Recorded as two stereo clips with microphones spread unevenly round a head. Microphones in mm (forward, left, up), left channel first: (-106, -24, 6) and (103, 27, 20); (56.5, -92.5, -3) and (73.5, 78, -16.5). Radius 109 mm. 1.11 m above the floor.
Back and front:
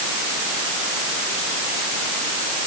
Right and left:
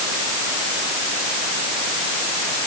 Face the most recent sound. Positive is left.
No sound to turn to.